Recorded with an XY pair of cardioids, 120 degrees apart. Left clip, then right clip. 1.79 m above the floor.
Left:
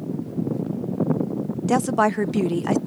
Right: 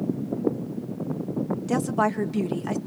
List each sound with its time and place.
1.7 s a woman speaking: 35° left, 0.6 m